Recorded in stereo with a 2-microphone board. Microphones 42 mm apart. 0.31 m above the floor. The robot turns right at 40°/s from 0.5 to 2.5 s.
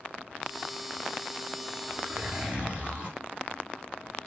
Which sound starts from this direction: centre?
A zipper, at 1.9 s.